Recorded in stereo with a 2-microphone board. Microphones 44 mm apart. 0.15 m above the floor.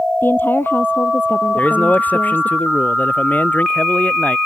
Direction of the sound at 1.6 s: 40° left (ahead or behind).